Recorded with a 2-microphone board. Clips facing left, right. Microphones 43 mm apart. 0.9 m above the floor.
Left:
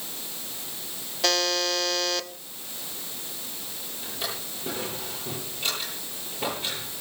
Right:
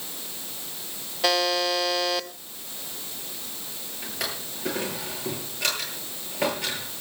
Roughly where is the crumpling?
No crumpling in this recording.